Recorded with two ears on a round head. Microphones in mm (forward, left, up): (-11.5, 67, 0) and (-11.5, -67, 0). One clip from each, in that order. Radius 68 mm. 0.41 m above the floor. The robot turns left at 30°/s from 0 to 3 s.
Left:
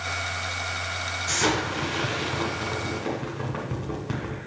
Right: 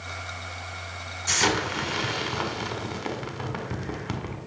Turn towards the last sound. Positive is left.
turn(degrees=-105)